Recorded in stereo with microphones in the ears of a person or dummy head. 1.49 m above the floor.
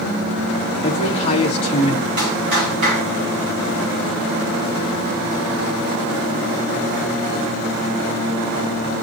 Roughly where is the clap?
Right.